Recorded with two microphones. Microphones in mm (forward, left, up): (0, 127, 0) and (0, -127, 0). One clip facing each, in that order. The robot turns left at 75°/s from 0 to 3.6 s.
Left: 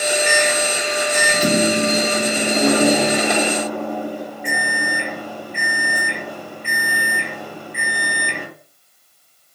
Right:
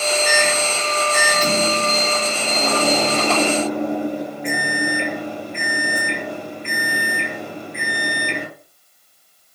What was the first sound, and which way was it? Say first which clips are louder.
A microwave: left 1 dB; 135° right.